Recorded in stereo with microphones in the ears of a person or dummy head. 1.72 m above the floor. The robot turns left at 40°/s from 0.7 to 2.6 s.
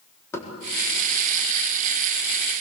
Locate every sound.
0.3 s knocking: 15° left (ahead or behind), 4 m